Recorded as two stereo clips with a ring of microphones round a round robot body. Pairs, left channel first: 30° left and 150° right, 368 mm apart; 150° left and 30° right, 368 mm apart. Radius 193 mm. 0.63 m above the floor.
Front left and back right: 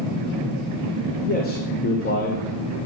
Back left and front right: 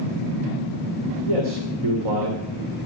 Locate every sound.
1.2 s a man speaking: 35° right, 2.5 m